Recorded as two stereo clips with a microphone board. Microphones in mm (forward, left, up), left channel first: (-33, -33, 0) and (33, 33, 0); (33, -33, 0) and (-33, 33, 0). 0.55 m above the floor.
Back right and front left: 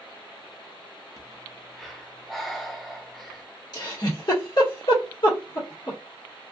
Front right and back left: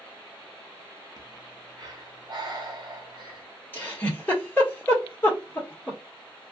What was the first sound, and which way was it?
Breathing, 135° left.